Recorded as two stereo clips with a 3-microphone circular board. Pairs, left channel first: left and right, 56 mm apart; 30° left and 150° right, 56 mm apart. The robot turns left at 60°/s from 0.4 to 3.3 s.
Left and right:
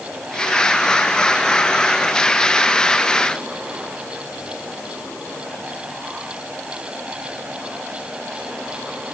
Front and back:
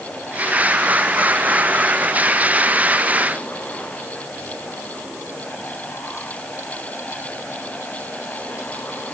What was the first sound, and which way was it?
Only background noise.